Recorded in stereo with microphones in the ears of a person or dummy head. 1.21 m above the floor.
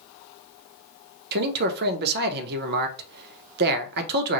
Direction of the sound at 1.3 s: 55° right (ahead or behind).